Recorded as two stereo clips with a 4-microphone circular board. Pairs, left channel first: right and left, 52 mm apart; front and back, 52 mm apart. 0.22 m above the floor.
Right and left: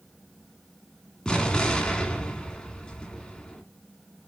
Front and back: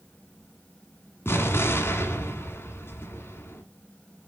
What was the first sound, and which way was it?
An explosion, 20° right.